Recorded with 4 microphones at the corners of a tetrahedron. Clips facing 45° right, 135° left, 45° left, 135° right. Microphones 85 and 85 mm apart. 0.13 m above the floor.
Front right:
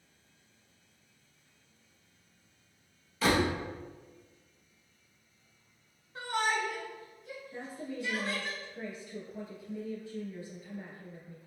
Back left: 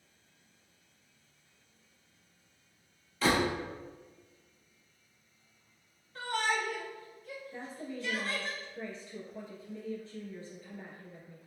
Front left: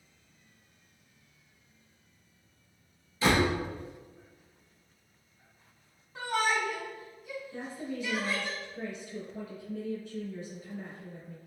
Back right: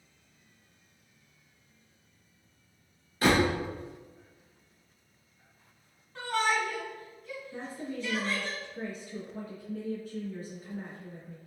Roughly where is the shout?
Ahead.